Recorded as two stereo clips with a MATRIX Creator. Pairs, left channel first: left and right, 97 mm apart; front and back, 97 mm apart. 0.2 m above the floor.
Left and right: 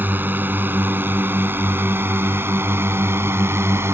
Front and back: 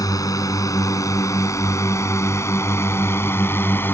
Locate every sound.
0.0 s a drone: 30° right; by 4.0 s 50° right